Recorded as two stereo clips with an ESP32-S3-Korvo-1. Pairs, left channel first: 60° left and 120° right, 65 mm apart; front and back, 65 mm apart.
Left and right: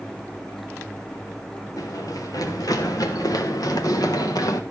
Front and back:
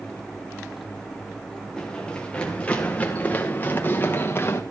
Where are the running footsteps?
75° left, 4 m; by 4.6 s 50° left, 3 m.